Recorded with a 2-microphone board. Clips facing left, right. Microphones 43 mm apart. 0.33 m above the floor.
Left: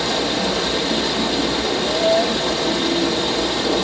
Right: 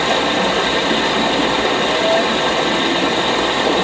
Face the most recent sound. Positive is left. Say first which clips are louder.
# right 5 dB
turn(degrees=-45)  # may be behind; listen again after turning